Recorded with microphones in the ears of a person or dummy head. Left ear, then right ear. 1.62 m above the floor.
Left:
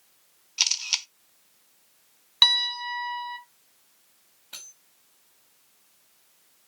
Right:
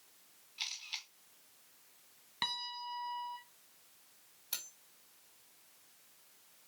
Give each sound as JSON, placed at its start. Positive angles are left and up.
{"t": 0.6, "sound": "a camera shutter", "side_deg": 50, "distance_m": 0.8}
{"t": 2.4, "sound": "a piano", "side_deg": 40, "distance_m": 2.5}
{"t": 4.5, "sound": "cutlery clinking", "side_deg": -75, "distance_m": 3.5}